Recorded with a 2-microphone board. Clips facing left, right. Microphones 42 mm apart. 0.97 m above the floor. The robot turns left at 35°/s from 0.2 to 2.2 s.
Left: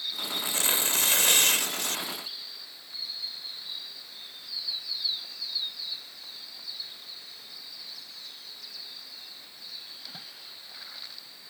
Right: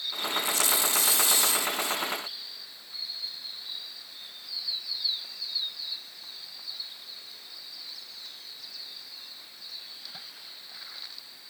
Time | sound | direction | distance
0.4 | tearing paper | 145° left | ?